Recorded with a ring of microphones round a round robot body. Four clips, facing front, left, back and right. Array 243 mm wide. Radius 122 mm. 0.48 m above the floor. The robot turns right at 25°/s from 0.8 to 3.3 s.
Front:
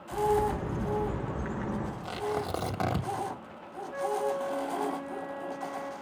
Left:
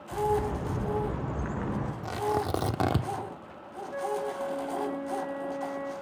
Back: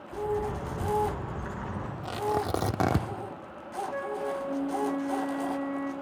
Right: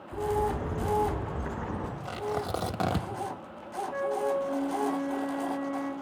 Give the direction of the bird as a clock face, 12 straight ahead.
10 o'clock.